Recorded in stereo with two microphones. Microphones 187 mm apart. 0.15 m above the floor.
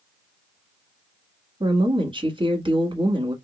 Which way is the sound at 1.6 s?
25° right (ahead or behind).